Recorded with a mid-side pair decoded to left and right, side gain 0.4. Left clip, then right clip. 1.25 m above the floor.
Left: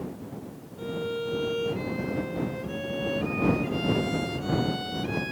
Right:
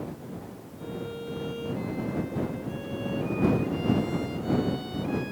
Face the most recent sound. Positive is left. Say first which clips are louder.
# left 6 dB
turn(degrees=60)